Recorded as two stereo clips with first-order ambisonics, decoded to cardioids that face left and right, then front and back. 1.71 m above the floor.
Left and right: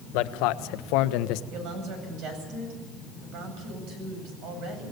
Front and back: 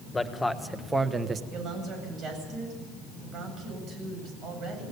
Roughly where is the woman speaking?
Behind right.